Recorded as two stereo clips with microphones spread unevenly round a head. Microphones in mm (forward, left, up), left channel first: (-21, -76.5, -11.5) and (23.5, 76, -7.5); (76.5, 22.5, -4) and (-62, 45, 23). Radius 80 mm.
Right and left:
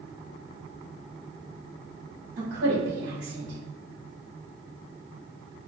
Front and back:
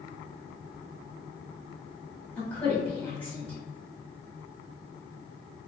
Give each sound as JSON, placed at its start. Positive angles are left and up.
{"t": 2.4, "sound": "a woman speaking", "azimuth_deg": 60, "distance_m": 1.8}